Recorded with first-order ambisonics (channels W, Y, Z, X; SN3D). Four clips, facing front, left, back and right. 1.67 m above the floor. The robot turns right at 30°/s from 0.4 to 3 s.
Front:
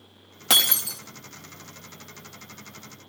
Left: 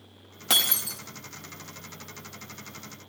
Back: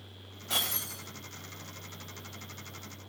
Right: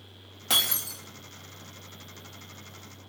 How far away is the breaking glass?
About 2 m.